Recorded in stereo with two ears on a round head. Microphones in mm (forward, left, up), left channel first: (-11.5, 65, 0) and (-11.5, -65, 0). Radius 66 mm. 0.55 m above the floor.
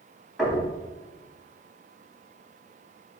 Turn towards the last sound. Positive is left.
turn(degrees=0)  # may be behind; listen again after turning